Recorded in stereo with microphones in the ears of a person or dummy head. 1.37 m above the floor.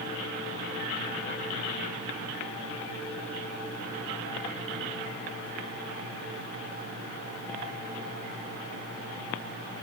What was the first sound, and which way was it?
Only background noise.